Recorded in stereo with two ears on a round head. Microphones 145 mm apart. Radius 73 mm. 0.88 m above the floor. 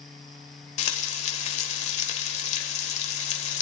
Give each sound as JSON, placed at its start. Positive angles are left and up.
{"t": 0.8, "sound": "frying", "side_deg": 45, "distance_m": 1.2}